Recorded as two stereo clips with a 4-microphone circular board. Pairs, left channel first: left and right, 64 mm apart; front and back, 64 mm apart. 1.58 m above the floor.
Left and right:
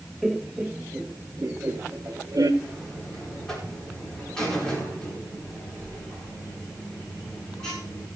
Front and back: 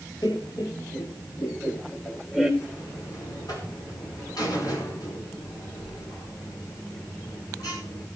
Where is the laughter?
5° right, 1.2 m; by 2.5 s 75° right, 1.1 m.